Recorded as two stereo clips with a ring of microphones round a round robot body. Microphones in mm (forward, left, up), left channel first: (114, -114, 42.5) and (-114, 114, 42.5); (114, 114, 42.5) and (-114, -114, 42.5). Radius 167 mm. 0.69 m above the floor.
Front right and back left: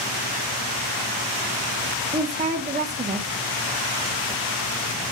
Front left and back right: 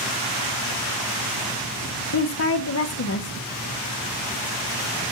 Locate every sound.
2.1 s a woman speaking: 75° left, 1.0 m